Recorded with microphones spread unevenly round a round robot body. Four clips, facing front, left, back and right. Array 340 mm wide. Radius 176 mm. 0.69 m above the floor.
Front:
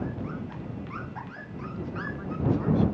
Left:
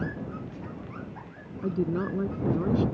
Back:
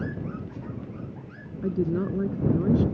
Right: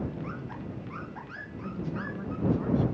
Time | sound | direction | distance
1.6 | a woman speaking | 155° left | ?